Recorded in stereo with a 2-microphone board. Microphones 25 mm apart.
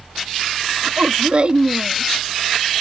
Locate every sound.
0.8 s a woman speaking: 45° right (ahead or behind)